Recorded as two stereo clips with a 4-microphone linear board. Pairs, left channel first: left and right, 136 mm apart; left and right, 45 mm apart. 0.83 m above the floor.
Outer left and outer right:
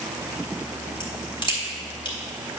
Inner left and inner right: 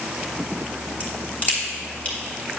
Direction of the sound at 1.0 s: 35° left (ahead or behind).